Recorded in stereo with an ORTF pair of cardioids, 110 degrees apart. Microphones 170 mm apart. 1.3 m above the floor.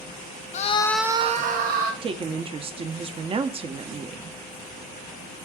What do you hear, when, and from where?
0.5 s a scream: 45° left, 0.7 m; by 1.9 s 65° right, 1.2 m
2.0 s a woman speaking: 35° right, 0.7 m